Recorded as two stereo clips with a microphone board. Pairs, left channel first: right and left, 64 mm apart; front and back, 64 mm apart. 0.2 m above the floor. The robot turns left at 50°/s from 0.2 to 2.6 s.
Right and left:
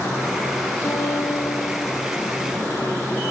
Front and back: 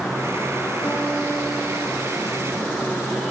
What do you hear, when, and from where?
0.8 s a guitar: 55° right, 5 m; by 2.9 s 145° right, 5 m